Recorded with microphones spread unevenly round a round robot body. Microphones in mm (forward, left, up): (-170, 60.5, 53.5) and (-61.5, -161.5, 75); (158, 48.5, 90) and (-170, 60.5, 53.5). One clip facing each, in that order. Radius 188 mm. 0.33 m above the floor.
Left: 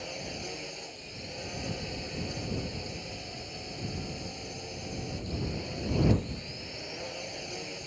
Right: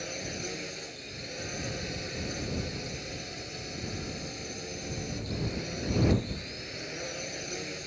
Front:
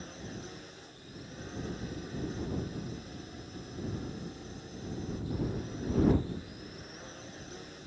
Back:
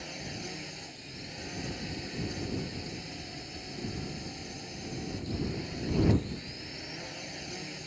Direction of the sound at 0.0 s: 130° right.